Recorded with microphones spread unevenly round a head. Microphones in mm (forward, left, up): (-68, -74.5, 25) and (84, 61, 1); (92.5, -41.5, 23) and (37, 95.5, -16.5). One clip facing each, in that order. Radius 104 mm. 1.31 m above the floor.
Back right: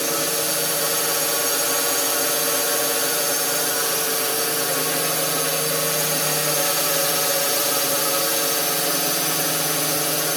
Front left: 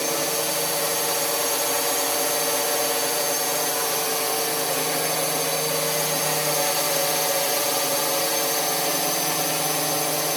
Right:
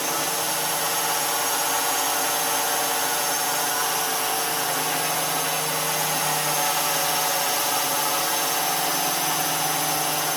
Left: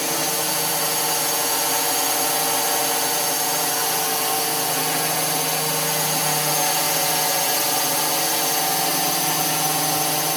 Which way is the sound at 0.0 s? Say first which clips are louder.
Back right 1 dB, left 2 dB; 155° left.